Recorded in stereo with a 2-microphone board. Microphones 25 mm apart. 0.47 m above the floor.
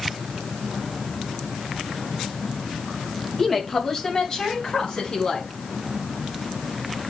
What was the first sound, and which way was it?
A woman speaking, 10° left (ahead or behind).